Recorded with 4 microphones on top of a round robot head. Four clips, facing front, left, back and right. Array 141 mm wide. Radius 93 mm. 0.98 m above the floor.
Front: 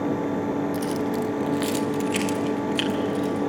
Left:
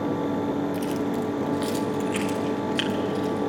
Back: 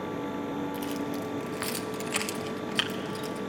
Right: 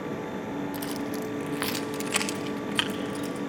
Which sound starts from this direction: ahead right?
Keys jangling, at 0.7 s.